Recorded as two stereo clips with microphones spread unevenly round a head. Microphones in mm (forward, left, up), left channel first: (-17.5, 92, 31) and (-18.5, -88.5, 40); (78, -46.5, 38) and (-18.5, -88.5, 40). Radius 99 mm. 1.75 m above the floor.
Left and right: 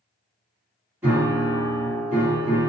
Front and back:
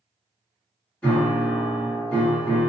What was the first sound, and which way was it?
A piano, 35° right.